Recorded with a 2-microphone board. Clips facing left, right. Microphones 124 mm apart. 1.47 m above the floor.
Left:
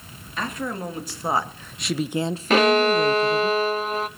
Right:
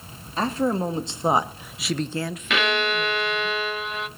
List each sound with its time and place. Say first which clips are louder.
0.4 s a woman speaking: right 6 dB; 35° right (ahead or behind), 2 m; by 3.5 s 70° left (ahead or behind), 1.3 m
2.5 s a violin: left 7 dB; 40° left (ahead or behind), 1.0 m